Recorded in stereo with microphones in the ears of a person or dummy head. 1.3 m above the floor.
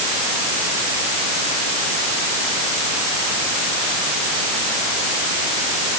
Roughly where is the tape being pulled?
No tape being pulled in this recording.